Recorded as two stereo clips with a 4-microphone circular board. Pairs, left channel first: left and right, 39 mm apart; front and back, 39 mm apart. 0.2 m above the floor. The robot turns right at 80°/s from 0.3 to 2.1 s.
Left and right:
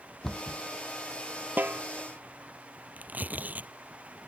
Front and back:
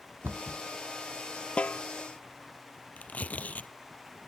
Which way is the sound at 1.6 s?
60° right.